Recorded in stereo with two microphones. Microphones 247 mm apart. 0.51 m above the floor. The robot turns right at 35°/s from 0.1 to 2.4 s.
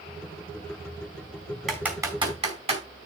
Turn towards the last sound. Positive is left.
turn(degrees=-25)  # may be behind; listen again after turning